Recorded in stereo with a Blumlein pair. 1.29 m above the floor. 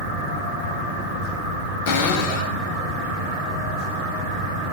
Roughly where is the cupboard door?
Ahead left.